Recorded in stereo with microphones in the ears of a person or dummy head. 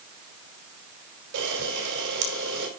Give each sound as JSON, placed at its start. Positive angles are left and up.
{"t": 1.3, "sound": "a camera shutter", "side_deg": -70, "distance_m": 5.0}